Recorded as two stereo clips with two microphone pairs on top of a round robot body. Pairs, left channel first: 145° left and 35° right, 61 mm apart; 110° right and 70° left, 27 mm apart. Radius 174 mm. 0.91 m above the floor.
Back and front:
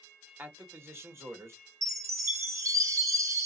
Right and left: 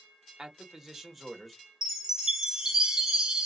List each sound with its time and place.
0.4 s a man speaking: 5° left, 1.4 m; by 1.6 s 25° right, 1.5 m
1.8 s a chime: 5° right, 1.1 m